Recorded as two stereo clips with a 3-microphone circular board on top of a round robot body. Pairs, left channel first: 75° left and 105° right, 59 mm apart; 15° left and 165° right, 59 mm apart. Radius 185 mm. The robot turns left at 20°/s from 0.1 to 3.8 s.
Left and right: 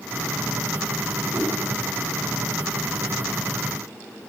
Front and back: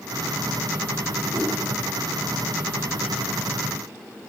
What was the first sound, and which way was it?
A whoosh, 170° right.